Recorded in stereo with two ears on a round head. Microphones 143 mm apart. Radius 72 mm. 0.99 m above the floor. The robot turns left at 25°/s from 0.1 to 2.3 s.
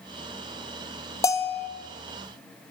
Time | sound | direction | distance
1.2 | a bell | 20° left (ahead or behind) | 0.9 m